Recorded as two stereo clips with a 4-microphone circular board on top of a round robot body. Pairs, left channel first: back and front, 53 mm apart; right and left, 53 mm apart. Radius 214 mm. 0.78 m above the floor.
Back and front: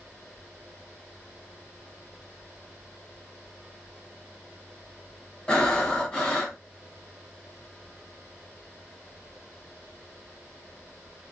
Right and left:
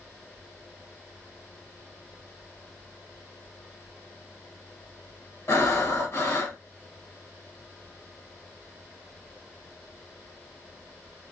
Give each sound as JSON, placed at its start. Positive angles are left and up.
{"t": 5.5, "sound": "breathing", "azimuth_deg": -105, "distance_m": 1.6}